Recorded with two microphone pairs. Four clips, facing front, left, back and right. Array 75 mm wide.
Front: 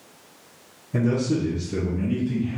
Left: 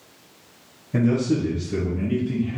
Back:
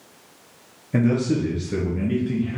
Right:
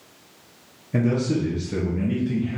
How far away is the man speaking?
About 3.5 m.